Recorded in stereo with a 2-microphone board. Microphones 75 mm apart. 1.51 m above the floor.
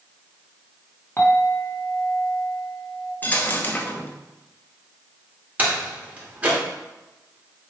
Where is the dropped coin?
25° left (ahead or behind), 0.9 m.